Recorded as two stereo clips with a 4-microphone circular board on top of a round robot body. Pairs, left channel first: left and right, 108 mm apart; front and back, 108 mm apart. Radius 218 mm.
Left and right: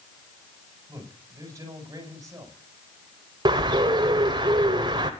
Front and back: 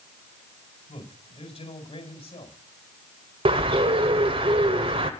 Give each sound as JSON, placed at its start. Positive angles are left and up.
{"t": 0.9, "sound": "a man speaking", "azimuth_deg": -30, "distance_m": 7.0}
{"t": 3.5, "sound": "a bird", "azimuth_deg": -140, "distance_m": 0.8}